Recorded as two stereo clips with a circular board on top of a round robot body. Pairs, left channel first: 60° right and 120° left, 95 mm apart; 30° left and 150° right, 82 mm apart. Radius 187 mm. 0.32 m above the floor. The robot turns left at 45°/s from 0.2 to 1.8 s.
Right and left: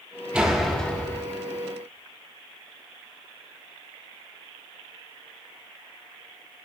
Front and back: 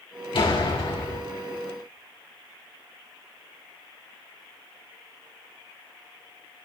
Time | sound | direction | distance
0.3 | a door slam | 40° left | 3 m